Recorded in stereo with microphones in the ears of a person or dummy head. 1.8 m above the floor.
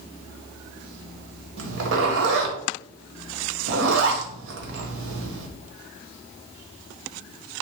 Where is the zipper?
75° right (ahead or behind), 1.6 m.